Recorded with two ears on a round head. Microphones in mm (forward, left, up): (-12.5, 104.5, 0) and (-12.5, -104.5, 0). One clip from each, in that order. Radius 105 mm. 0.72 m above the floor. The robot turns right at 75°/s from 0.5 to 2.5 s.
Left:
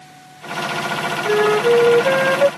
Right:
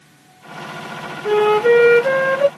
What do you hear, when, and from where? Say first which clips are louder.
1.2 s a flute: right 2 dB; 110° right; by 2.5 s 20° right